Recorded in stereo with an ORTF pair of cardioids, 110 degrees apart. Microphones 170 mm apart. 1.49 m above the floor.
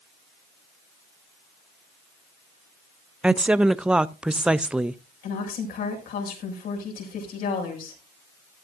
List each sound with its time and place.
3.2 s a woman speaking: 5° right, 0.5 m
5.2 s a woman speaking: 60° left, 6.5 m